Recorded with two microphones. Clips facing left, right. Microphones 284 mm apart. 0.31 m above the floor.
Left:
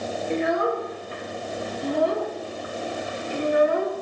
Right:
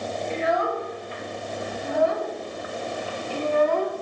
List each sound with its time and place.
0.3 s a child speaking: 55° left (ahead or behind), 3.5 m; by 3.9 s 10° left (ahead or behind), 1.7 m